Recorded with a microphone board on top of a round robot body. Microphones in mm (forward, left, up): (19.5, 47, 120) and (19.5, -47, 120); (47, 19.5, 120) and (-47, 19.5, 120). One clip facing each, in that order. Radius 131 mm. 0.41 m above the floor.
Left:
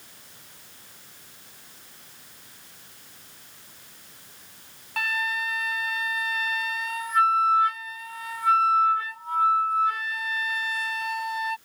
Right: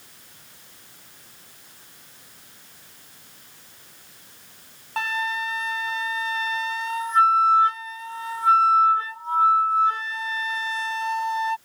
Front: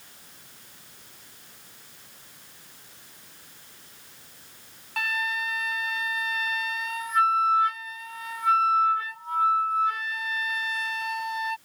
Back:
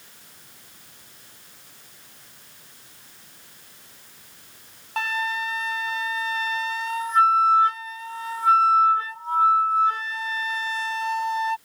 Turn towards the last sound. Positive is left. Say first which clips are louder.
# right 2 dB, back 3 dB
turn(degrees=-135)